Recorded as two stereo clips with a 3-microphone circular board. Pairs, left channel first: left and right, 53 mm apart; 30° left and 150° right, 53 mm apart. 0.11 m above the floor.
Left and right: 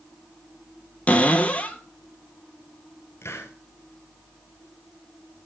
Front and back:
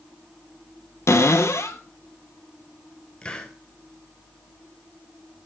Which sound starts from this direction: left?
A hiss, at 3.2 s.